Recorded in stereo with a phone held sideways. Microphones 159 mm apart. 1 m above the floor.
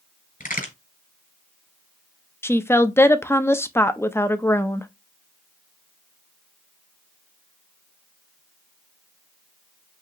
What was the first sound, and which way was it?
A crack, 65° left (ahead or behind).